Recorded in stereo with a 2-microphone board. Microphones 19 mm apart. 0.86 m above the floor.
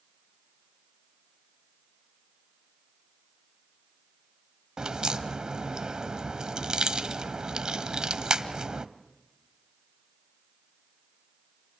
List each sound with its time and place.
4.8 s a crack: 45° right (ahead or behind), 1.1 m